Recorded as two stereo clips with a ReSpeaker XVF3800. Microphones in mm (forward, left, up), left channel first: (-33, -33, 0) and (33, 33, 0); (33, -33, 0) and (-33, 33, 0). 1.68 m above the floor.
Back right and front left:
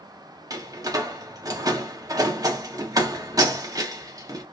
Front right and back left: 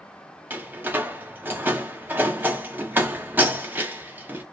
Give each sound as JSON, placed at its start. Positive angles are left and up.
{"t": 0.5, "sound": "a door slam", "azimuth_deg": 75, "distance_m": 0.6}